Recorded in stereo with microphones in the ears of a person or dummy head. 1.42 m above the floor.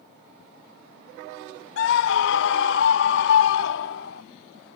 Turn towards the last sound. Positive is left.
turn(degrees=75)  # may be behind; listen again after turning